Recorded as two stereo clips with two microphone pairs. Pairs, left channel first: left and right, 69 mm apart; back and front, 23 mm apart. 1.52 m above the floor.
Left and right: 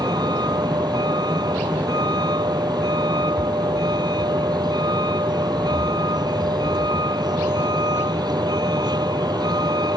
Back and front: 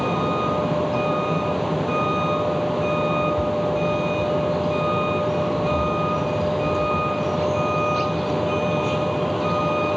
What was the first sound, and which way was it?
A vehicle, 90° right.